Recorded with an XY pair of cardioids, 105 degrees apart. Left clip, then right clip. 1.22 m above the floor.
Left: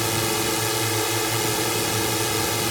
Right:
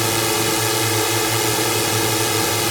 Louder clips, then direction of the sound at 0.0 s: Right 4 dB; 25° right.